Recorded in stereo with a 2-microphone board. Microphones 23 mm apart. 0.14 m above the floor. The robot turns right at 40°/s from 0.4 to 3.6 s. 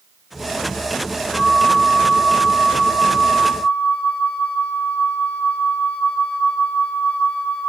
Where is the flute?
5° left, 1.3 m; by 7.7 s 95° left, 1.3 m.